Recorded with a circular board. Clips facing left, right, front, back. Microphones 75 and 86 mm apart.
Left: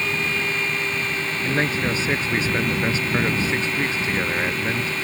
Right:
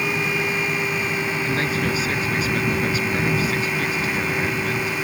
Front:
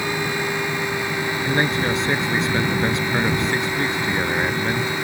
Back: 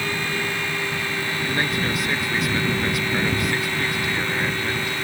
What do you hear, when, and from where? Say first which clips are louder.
1.4 s a man speaking: left 3 dB, front 4 dB; 45° left